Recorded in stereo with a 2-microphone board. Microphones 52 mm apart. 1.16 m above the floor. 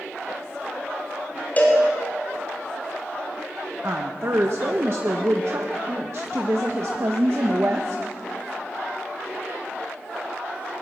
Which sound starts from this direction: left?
A cowbell, at 1.6 s.